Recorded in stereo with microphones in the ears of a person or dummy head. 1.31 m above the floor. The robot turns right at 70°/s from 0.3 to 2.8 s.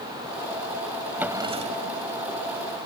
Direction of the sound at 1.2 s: 175° right.